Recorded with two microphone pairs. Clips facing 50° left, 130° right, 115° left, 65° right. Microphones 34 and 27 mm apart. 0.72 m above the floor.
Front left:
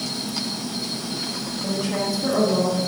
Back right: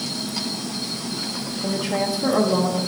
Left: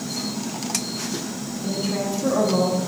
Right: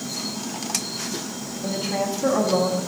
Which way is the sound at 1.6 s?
55° right.